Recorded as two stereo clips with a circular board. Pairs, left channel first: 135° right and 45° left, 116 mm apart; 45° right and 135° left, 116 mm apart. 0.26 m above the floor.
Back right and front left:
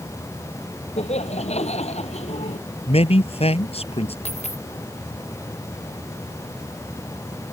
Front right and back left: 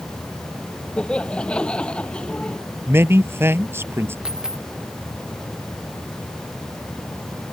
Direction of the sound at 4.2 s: 140° right.